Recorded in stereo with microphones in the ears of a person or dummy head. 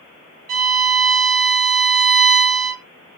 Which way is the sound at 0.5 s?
45° right (ahead or behind).